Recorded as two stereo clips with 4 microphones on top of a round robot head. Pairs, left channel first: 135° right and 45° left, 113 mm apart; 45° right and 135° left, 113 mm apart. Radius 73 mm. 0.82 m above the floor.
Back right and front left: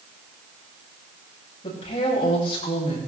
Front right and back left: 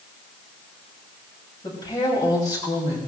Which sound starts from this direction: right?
A woman speaking, at 1.6 s.